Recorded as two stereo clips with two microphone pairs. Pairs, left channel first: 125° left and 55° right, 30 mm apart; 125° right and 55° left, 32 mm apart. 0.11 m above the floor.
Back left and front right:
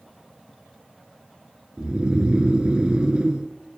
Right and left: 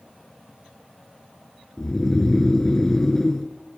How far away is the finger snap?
No finger snap in this recording.